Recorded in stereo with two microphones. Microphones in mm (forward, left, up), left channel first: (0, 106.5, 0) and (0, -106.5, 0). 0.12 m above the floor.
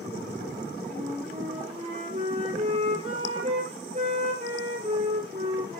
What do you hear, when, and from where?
0.9 s a flute: 30° right (ahead or behind), 2.0 m